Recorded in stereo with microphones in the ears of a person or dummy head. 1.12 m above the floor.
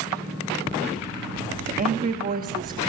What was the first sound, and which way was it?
A woman speaking, 40° right (ahead or behind).